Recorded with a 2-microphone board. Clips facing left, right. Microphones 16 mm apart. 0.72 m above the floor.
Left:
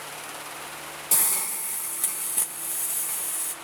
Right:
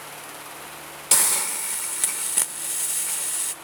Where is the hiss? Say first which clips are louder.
Right 6 dB; 45° right (ahead or behind), 0.6 m.